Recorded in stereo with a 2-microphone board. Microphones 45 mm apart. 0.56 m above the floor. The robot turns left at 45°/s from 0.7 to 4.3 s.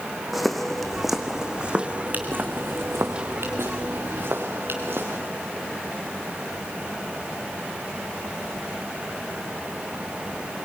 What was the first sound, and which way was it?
Footsteps, 5° right (ahead or behind).